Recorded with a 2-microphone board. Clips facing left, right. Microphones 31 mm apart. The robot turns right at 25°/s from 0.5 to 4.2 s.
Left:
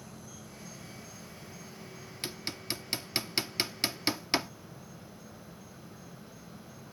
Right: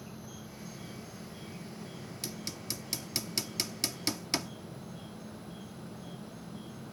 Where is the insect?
160° right; by 6.9 s 65° right.